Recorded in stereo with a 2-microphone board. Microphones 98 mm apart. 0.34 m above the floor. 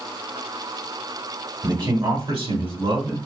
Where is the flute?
I don't hear a flute.